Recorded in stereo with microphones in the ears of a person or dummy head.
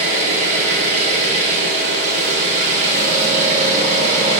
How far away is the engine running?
About 1.3 m.